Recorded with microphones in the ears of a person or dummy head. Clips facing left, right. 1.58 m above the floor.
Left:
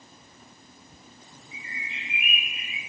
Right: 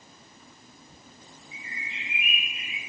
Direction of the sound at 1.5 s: 40° left (ahead or behind).